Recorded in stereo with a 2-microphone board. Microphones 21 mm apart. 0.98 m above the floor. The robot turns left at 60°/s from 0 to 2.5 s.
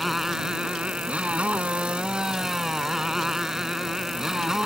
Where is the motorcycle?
Straight ahead; by 4.7 s 150° right.